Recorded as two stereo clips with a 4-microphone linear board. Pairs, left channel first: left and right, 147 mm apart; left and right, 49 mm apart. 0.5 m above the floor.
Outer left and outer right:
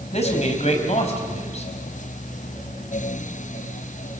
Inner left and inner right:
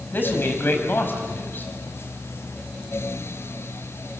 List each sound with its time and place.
0.1 s a man speaking: 45° left (ahead or behind), 3.5 m